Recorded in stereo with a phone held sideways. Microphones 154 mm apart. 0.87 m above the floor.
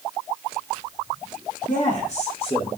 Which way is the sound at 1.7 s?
60° left (ahead or behind).